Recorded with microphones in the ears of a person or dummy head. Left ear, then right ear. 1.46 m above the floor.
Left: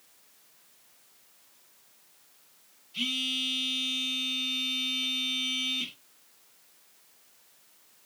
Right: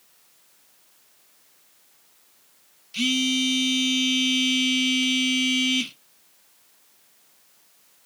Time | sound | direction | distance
2.9 | a phone buzzing | 70° right (ahead or behind) | 0.7 m